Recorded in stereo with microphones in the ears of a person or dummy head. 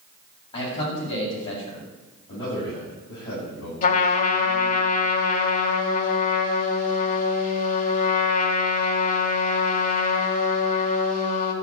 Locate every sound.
0.5 s a man speaking: 30° left (ahead or behind), 7.5 m
2.3 s a man speaking: 35° left (ahead or behind), 9 m
3.8 s a trumpet: 35° left (ahead or behind), 1.7 m